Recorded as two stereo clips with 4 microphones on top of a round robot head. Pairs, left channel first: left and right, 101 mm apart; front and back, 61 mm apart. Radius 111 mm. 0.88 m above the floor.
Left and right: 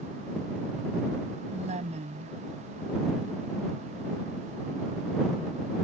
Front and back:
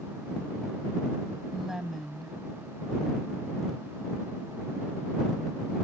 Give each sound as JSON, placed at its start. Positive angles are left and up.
{"t": 1.5, "sound": "a woman speaking", "azimuth_deg": -90}